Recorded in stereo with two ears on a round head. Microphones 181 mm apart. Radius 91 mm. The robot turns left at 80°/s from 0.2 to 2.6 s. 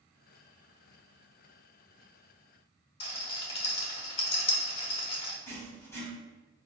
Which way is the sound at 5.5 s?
15° left (ahead or behind).